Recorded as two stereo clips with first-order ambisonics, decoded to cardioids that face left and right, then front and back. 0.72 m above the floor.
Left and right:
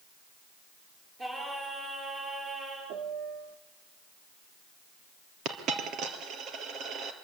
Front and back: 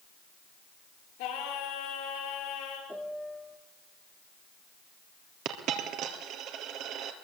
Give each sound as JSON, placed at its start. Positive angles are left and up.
{"t": 1.2, "sound": "singing", "azimuth_deg": -20, "distance_m": 7.5}
{"t": 2.9, "sound": "a piano", "azimuth_deg": -90, "distance_m": 1.4}
{"t": 5.5, "sound": "a dropped coin", "azimuth_deg": -140, "distance_m": 2.5}